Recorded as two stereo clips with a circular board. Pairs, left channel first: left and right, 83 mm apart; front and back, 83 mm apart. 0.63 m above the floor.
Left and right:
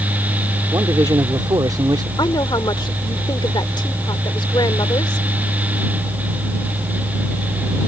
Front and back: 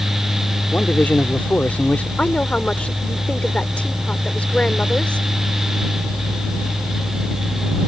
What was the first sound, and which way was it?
A man speaking, 70° right.